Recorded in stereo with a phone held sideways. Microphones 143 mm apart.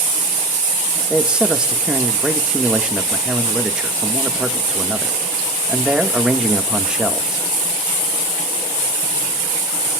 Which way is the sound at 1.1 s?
5° right (ahead or behind).